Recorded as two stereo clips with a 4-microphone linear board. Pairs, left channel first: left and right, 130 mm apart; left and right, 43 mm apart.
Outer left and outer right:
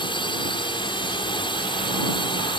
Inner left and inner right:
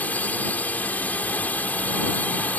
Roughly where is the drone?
Left.